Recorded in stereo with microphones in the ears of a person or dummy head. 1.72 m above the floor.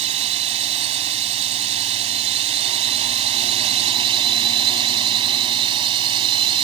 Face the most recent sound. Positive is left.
turn(degrees=-30)  # may be behind; listen again after turning